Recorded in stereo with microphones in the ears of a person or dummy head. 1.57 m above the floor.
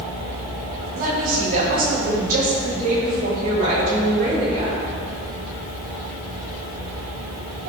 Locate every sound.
0.9 s a woman speaking: 45° right (ahead or behind), 2.5 m; by 4.8 s 40° right (ahead or behind), 5 m